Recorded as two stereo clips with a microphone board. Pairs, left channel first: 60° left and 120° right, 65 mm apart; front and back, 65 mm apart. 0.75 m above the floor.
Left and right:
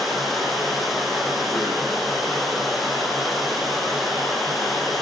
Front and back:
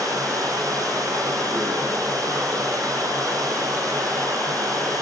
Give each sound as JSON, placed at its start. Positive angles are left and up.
{"t": 0.0, "sound": "running water", "azimuth_deg": 150, "distance_m": 5.5}